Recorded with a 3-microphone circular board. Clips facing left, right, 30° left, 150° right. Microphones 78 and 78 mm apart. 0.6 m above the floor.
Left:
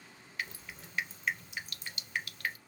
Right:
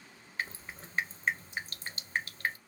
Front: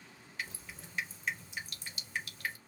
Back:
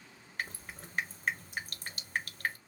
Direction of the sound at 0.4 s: 135° right.